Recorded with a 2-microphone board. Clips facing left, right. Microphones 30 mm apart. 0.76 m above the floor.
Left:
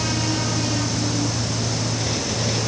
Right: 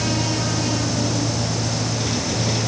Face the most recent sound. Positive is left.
No sound to turn to.